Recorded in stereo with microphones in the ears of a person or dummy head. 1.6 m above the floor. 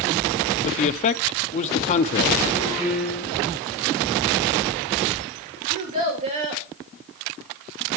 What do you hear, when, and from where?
0.7 s a man speaking: 40° left (ahead or behind), 0.6 m
2.8 s a piano: centre (ahead or behind), 2.5 m
5.7 s a child speaking: 35° right (ahead or behind), 2.5 m